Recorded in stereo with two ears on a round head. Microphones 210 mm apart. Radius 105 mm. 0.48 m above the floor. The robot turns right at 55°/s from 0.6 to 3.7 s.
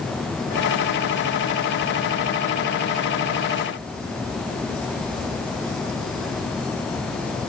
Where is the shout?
No shout in this recording.